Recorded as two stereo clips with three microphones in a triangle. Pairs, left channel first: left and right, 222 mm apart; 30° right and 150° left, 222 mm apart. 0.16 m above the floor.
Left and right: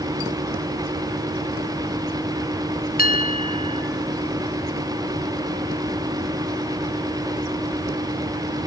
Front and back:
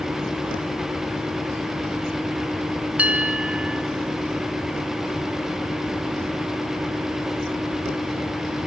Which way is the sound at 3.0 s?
70° left.